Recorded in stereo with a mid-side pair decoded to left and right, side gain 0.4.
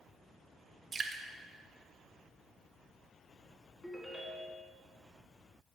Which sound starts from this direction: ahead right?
Dripping, at 0.9 s.